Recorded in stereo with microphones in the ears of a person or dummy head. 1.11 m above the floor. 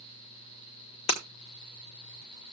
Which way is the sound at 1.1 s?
40° left (ahead or behind).